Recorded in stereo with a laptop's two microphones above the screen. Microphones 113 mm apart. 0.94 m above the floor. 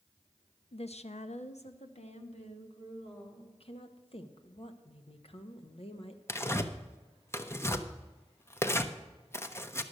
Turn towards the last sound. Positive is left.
turn(degrees=20)  # may be behind; listen again after turning